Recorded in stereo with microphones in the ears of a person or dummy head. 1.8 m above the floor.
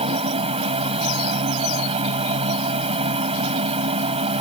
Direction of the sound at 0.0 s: 30° right (ahead or behind).